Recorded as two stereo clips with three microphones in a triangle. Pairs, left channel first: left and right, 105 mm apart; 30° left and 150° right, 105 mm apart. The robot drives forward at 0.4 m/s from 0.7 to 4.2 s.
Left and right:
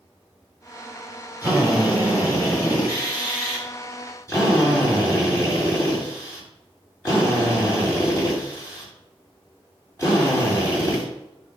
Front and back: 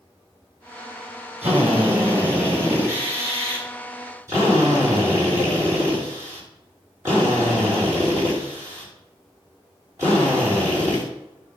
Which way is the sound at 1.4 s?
145° left.